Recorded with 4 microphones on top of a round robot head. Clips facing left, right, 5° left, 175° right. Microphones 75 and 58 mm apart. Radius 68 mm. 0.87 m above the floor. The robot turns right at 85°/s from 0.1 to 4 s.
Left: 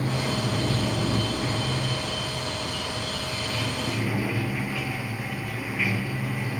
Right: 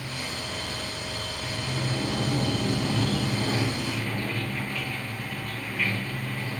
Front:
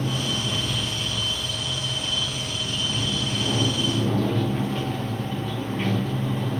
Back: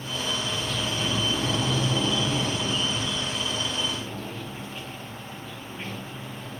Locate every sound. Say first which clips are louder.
0.0 s running water: left 8 dB, front 3 dB; 40° left; by 6.6 s 10° left